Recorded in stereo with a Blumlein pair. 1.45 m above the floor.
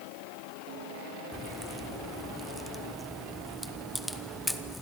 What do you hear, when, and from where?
1.3 s a crack: 5° left, 1.1 m